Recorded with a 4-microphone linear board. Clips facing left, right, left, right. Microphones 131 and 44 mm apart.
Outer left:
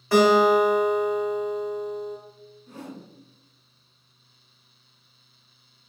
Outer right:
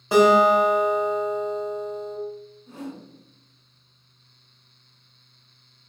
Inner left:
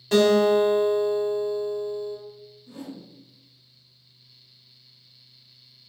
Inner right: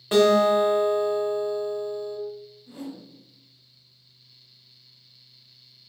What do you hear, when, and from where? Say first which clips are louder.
0.1 s a guitar: outer right 1 dB, even; 20° right (ahead or behind), 0.9 m
2.7 s a whoosh: outer right 3 dB, inner right 1 dB; 30° right (ahead or behind), 1.5 m